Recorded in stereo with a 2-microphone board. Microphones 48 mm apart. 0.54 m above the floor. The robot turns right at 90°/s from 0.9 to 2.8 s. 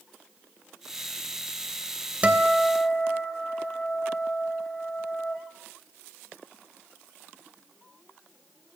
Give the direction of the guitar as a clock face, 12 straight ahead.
1 o'clock.